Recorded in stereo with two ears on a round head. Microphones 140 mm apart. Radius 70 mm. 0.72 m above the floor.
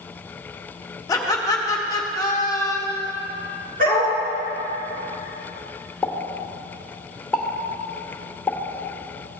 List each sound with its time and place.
1.1 s laughter: 25° left (ahead or behind), 1.4 m
3.8 s a dog barking: 60° right (ahead or behind), 3.5 m
6.0 s a pop: 5° left (ahead or behind), 1.1 m